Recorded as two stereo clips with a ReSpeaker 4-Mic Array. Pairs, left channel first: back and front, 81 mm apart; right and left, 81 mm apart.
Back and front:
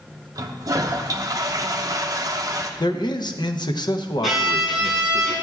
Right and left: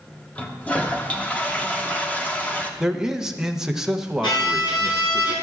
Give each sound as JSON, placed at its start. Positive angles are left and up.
{"t": 0.3, "sound": "a toilet flushing", "azimuth_deg": -25, "distance_m": 0.8}
{"t": 2.8, "sound": "a man speaking", "azimuth_deg": 170, "distance_m": 0.7}
{"t": 4.2, "sound": "a violin", "azimuth_deg": -90, "distance_m": 4.0}